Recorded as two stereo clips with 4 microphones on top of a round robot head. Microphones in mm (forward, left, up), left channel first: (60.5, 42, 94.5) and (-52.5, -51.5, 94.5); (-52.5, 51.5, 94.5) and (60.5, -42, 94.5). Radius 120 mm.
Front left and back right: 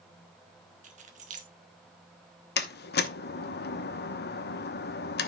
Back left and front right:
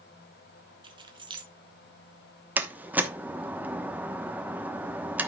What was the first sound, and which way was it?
Keys jangling, 100° right.